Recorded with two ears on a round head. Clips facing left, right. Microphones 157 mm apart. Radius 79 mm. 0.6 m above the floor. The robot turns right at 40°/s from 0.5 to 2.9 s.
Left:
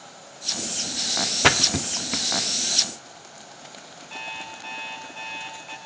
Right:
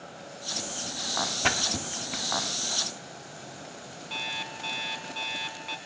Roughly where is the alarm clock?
Right.